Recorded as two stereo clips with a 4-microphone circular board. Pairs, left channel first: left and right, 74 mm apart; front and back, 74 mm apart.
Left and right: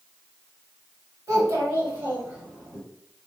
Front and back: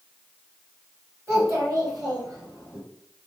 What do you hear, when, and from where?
1.3 s a child speaking: 130° right, 2.0 m; by 2.8 s 165° right, 3 m